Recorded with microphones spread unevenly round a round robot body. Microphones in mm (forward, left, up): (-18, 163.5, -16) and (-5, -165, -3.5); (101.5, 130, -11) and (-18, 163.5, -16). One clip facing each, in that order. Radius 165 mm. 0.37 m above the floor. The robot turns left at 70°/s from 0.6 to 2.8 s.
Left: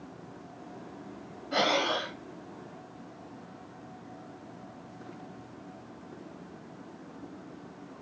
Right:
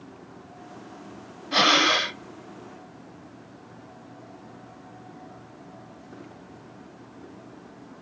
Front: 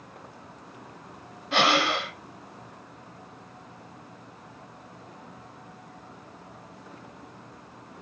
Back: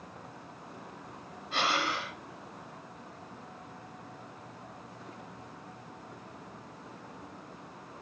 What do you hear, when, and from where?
1.5 s breathing: 20° right, 0.6 m; by 2.2 s 65° right, 0.6 m